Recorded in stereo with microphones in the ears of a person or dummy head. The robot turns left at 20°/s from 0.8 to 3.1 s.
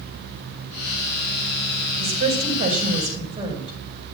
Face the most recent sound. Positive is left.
turn(degrees=-35)  # may be behind; listen again after turning